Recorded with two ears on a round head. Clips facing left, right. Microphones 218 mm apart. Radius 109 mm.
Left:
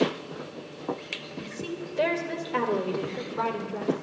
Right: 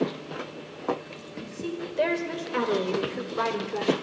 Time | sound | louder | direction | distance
1.4 | a woman speaking | right 3 dB | 15° left (ahead or behind) | 3 m